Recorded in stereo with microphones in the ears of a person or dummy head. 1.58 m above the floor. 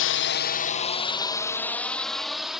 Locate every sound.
0.0 s a drone: 60° left (ahead or behind); by 2.6 s centre (ahead or behind)